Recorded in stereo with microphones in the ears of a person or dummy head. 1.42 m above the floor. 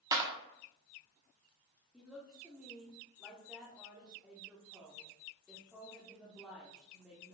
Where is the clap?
20° right (ahead or behind), 0.9 m.